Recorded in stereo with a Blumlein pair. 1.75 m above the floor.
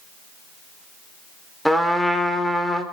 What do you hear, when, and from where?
1.6 s a trumpet: straight ahead, 3.5 m